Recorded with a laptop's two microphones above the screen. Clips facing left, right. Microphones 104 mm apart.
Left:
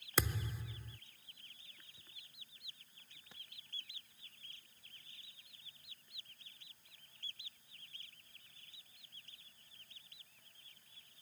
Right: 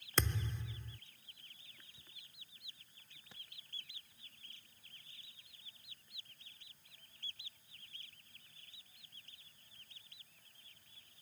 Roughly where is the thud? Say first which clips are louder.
Even; centre.